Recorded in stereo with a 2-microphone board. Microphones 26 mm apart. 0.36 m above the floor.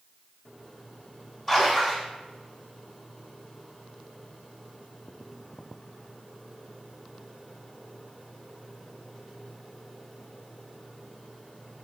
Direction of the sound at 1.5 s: 25° left (ahead or behind).